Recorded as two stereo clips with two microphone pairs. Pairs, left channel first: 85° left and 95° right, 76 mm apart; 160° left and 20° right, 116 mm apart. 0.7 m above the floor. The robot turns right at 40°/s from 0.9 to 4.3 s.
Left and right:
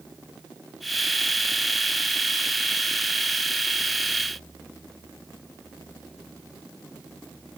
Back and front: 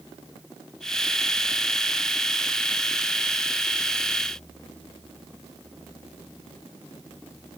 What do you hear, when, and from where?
Only background noise.